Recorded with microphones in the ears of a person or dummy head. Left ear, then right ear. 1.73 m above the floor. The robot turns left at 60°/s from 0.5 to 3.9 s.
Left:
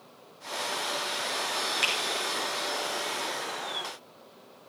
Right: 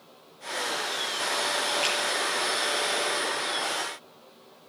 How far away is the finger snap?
About 8.5 m.